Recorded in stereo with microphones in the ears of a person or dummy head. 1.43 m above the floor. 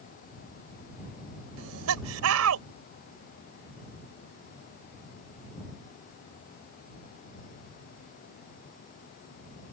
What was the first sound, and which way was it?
Laughter, 85° right.